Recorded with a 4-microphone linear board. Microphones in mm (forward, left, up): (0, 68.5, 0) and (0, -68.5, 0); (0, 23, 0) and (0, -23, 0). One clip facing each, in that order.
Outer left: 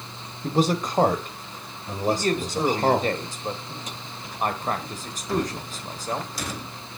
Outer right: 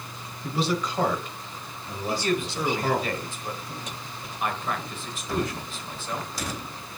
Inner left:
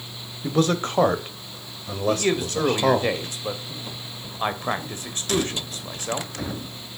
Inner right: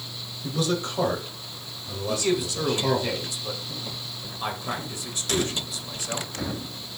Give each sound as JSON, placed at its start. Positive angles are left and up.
{"t": 0.4, "sound": "a man speaking", "side_deg": 45, "distance_m": 1.3}
{"t": 2.1, "sound": "a man speaking", "side_deg": 40, "distance_m": 1.5}